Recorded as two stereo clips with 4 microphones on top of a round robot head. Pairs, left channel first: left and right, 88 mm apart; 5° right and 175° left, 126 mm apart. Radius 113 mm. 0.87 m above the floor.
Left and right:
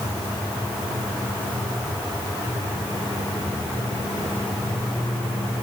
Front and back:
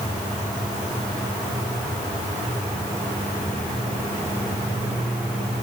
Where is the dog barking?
I don't hear a dog barking.